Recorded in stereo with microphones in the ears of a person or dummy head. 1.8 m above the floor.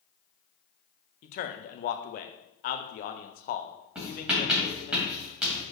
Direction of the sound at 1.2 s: 50° left (ahead or behind).